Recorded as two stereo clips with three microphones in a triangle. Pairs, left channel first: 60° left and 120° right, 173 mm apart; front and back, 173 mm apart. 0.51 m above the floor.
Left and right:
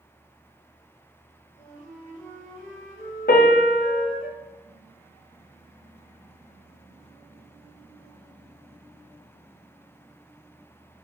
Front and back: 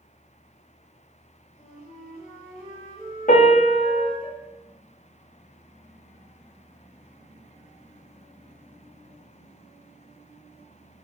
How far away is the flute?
About 1.9 m.